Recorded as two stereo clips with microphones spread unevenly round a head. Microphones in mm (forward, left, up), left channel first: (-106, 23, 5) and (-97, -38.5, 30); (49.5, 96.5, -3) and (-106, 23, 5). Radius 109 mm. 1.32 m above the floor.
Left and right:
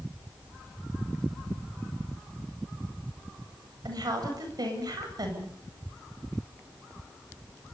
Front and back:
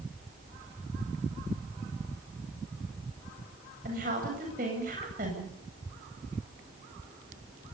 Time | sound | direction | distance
3.9 | a woman speaking | 95° right | 8 m